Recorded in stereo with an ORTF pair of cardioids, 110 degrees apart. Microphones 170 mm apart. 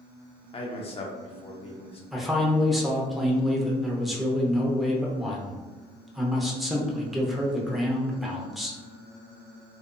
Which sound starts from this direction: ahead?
A man speaking, at 2.1 s.